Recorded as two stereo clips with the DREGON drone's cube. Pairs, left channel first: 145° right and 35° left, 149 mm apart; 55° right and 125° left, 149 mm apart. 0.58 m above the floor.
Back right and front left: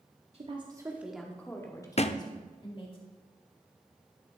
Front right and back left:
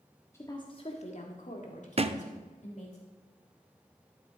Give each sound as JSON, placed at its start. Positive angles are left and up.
{"t": 0.3, "sound": "a woman speaking", "azimuth_deg": 10, "distance_m": 1.3}
{"t": 2.0, "sound": "a thud", "azimuth_deg": 170, "distance_m": 0.5}